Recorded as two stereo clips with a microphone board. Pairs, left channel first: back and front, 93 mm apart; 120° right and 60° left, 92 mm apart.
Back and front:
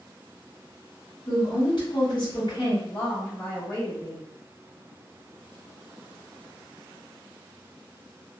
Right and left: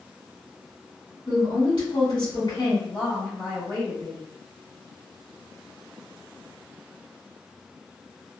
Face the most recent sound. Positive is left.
turn(degrees=-115)